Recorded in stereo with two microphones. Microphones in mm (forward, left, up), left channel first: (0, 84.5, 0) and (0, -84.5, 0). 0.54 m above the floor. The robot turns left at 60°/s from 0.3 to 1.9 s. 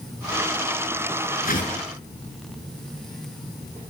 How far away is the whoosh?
About 6.5 m.